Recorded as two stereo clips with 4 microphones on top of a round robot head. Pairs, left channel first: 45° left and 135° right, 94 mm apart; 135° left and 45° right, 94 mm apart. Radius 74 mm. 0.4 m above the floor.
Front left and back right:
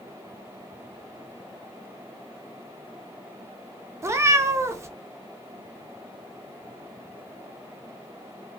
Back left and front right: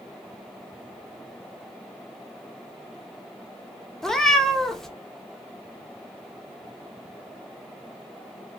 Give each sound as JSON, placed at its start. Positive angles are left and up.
{"t": 4.0, "sound": "a cat meowing", "azimuth_deg": -145, "distance_m": 0.5}